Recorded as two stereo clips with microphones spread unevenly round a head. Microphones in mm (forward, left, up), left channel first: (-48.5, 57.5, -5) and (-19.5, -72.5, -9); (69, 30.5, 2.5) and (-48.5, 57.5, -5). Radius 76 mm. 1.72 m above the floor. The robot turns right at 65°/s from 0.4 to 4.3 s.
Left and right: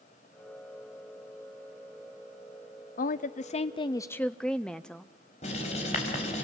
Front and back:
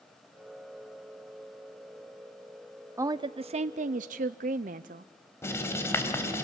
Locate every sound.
3.0 s a woman speaking: 100° left, 0.6 m; by 5.0 s 175° right, 0.6 m
5.4 s writing: 55° left, 4 m